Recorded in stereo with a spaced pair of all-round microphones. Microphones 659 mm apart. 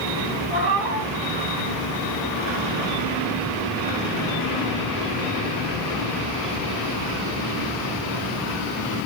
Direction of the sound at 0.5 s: 35° right (ahead or behind).